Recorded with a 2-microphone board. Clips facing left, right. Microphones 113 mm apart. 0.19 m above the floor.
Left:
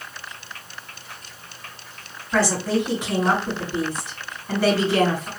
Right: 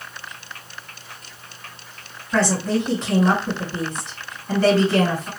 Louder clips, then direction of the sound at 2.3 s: Right 1 dB; 10° left (ahead or behind).